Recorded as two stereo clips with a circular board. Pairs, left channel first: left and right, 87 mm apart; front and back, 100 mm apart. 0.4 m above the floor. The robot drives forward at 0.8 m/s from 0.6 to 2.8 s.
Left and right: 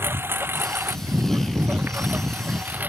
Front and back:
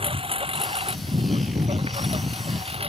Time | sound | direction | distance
0.0 | a lawn mower | 155° right | ?